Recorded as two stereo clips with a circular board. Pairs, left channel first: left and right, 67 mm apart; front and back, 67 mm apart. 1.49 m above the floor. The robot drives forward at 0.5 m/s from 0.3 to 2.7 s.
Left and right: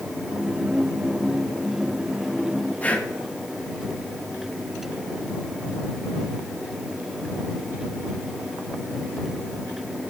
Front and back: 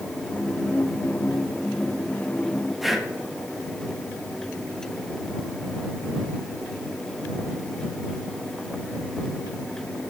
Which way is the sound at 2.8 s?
95° left.